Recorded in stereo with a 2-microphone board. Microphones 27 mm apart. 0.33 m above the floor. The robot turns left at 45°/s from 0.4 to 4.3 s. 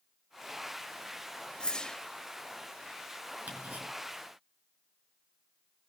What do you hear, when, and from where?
1.6 s a whoosh: 35° left (ahead or behind), 0.8 m; by 2.0 s 25° left (ahead or behind), 0.8 m
3.5 s ticking: 75° right (ahead or behind), 5 m; by 3.9 s 65° right (ahead or behind), 5 m